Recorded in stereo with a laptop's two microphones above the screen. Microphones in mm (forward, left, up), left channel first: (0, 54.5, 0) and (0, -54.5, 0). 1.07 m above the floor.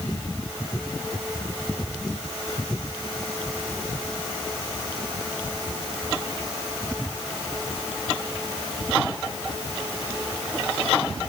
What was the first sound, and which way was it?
Only background noise.